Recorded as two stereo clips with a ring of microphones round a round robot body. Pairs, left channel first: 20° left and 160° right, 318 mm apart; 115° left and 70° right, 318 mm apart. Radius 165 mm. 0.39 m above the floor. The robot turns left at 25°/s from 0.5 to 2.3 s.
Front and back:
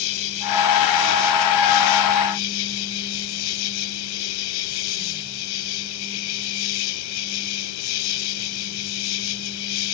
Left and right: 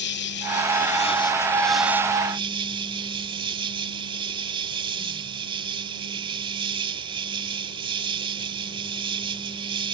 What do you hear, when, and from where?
0.0 s an insect: 55° left; by 9.9 s 10° left